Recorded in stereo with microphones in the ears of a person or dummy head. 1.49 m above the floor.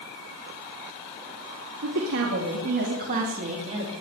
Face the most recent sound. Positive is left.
turn(degrees=-25)  # may be behind; listen again after turning